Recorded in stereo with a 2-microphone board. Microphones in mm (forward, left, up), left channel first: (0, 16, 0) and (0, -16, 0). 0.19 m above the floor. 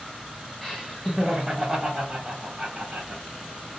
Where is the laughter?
10° left (ahead or behind), 1.1 m; by 3.2 s 30° right (ahead or behind), 1.6 m.